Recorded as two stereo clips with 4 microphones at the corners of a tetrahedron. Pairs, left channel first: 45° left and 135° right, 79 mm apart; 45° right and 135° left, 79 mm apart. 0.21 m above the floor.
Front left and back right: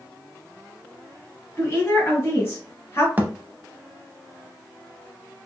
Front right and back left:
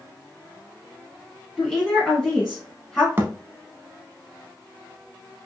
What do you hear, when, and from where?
1.6 s a woman speaking: 30° left, 1.5 m
3.2 s a thud: 170° left, 0.5 m